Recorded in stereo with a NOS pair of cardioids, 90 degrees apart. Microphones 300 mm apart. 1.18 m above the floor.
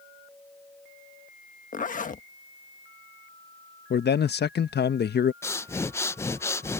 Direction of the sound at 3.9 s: 35° left.